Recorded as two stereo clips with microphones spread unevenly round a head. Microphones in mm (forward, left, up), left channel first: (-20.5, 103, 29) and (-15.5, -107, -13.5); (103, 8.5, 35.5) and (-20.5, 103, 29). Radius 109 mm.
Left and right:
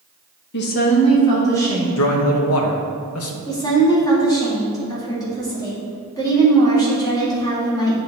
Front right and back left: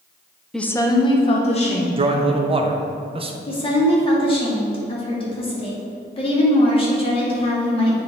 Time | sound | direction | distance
0.5 | a woman speaking | 50° left | 0.8 m
2.0 | a man speaking | 90° left | 1.1 m
3.5 | a woman speaking | 15° left | 2.5 m